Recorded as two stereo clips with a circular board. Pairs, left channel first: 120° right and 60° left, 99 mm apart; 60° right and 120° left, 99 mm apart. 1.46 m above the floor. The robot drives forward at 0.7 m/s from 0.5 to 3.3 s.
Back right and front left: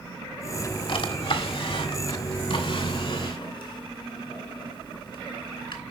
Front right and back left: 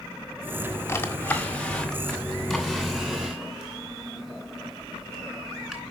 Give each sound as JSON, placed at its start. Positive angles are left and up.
{"t": 0.9, "sound": "a drawer", "azimuth_deg": -120, "distance_m": 1.5}